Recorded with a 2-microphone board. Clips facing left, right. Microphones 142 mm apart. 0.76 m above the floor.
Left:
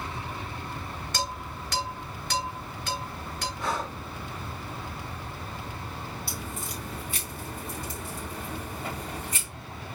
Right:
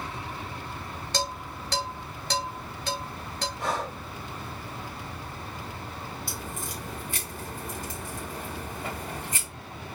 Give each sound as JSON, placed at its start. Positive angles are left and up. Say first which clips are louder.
{"t": 1.1, "sound": "dishes clattering", "louder": "right 2 dB", "side_deg": -35, "distance_m": 2.5}
{"t": 3.6, "sound": "breathing", "louder": "right 1 dB", "side_deg": -55, "distance_m": 3.5}
{"t": 6.3, "sound": "a crack", "louder": "even", "side_deg": -45, "distance_m": 3.5}